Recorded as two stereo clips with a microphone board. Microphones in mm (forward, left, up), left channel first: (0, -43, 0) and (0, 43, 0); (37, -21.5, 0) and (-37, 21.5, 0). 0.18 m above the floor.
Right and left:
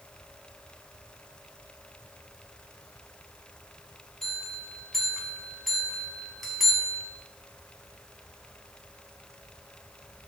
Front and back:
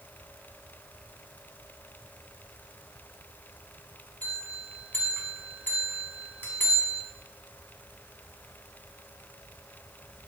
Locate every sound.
4.2 s a bell: 5° right, 1.1 m